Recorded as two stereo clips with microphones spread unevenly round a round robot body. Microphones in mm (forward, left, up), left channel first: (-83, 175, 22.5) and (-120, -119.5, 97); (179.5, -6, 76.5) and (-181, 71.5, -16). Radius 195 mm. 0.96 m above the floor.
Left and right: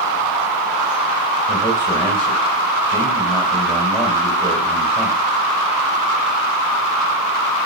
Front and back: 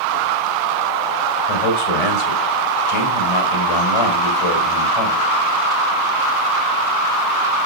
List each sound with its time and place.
1.5 s a man speaking: 10° right, 4.5 m